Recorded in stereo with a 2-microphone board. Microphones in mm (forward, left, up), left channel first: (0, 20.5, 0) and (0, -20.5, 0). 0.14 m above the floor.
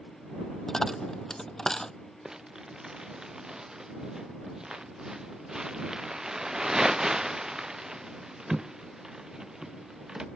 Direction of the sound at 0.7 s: 15° left (ahead or behind).